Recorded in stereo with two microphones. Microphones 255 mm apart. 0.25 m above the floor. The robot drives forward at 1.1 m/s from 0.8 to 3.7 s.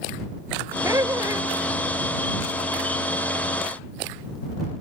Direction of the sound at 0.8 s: 15° right (ahead or behind).